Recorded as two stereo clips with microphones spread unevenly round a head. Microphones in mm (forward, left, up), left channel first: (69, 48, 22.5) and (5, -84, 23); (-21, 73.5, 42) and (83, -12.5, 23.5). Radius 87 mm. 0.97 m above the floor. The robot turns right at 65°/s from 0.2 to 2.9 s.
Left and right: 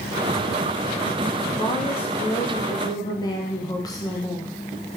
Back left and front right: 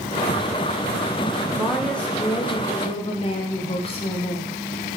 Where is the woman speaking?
25° left, 0.8 m; by 4.5 s 115° left, 0.8 m.